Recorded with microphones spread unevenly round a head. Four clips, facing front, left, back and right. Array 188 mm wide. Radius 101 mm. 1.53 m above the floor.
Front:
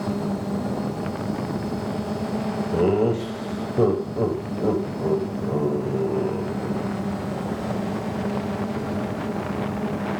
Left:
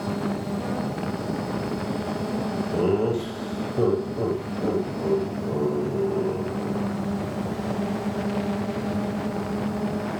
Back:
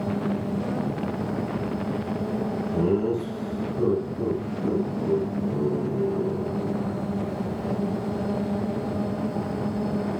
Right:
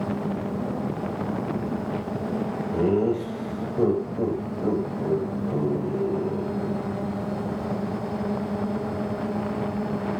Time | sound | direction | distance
2.7 | laughter | 5° left | 9 m